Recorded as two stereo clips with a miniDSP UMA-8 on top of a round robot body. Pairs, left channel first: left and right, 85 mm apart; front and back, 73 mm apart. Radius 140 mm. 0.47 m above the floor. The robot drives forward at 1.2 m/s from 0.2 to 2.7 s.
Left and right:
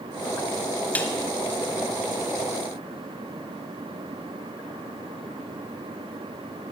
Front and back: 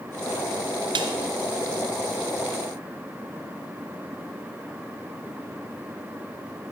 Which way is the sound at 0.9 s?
165° left.